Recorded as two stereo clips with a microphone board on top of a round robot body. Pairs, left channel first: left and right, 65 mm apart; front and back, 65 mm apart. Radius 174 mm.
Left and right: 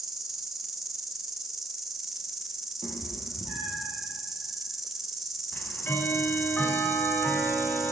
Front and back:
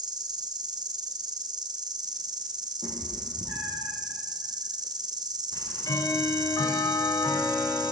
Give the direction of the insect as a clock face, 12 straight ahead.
6 o'clock.